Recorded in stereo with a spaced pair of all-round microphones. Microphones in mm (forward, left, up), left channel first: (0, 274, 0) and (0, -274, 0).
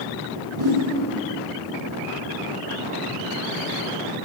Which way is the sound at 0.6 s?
80° right.